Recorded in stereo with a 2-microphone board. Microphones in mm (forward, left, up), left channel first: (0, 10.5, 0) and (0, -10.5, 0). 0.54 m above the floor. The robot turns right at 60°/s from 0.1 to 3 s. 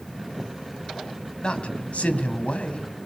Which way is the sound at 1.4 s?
40° left.